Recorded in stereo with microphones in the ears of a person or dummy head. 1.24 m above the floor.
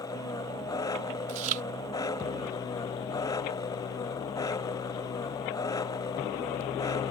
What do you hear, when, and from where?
0.0 s an engine running: 15° left (ahead or behind)
1.3 s chewing: 45° right (ahead or behind)